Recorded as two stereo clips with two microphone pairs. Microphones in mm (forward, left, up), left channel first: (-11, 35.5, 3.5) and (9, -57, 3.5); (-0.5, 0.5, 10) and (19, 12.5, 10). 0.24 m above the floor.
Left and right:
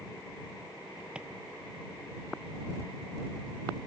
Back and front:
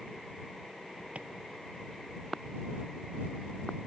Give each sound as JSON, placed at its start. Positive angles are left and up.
{"t": 1.1, "sound": "a drawer", "azimuth_deg": 0}